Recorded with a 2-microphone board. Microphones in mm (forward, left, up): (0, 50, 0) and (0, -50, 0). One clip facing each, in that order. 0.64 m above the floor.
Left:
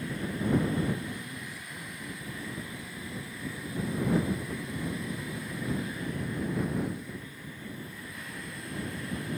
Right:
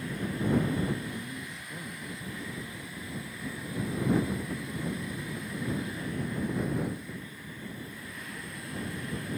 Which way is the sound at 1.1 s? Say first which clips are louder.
Right 1 dB; 25° right (ahead or behind).